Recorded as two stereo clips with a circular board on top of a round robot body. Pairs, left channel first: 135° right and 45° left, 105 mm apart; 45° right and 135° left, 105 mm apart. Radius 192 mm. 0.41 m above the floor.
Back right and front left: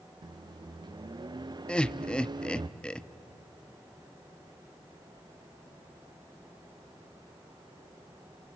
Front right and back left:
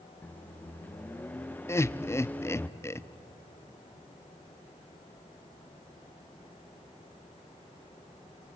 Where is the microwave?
25° left, 0.8 m.